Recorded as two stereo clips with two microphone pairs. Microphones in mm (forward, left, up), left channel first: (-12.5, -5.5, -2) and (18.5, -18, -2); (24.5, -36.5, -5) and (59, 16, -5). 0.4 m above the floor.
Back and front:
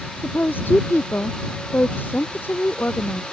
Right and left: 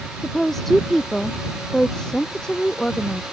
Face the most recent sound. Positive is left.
turn(degrees=160)